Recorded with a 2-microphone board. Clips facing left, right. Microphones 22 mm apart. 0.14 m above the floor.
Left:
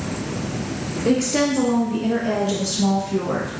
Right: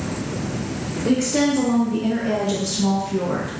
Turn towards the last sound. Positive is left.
turn(degrees=10)  # may be behind; listen again after turning